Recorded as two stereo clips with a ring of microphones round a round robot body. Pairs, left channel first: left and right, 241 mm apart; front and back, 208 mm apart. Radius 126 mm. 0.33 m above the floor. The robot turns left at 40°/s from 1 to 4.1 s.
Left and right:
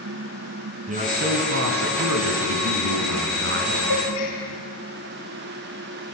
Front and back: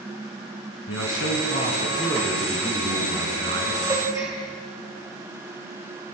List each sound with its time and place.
0.9 s a man speaking: 30° right, 4.5 m; by 3.8 s 140° right, 4.5 m
3.9 s a gasp: 115° left, 9.5 m; by 4.4 s 105° left, 9.5 m